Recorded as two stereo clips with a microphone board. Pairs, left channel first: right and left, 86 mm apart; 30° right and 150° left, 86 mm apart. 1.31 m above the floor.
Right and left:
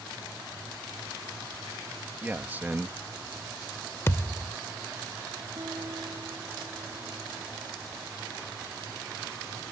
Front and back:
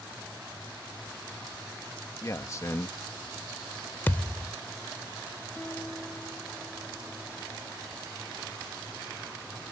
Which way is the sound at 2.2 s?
20° left.